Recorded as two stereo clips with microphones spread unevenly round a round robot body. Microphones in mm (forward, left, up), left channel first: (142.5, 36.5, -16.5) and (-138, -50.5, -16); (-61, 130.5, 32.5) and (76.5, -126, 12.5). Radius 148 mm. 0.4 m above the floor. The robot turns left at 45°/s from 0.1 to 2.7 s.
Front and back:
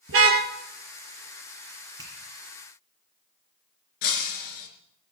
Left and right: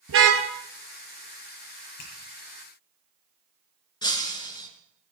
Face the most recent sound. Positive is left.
turn(degrees=40)